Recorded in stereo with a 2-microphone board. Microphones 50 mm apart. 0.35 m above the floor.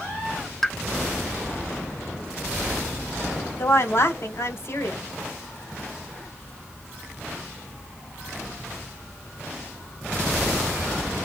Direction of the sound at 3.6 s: 55° left (ahead or behind).